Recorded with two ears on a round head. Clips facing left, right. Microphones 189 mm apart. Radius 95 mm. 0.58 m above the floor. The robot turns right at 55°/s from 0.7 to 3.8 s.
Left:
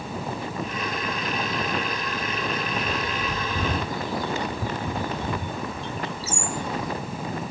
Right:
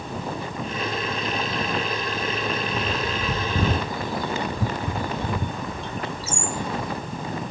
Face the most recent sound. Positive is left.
turn(degrees=-45)  # may be behind; listen again after turning